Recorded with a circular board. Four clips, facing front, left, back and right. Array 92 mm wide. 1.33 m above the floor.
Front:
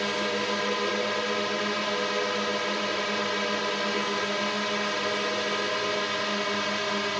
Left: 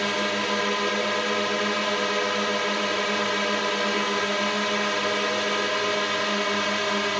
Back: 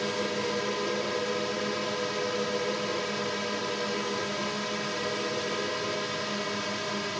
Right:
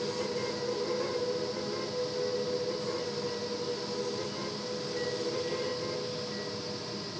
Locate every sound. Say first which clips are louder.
0.0 s a drone: left 7 dB, front 2 dB; 75° left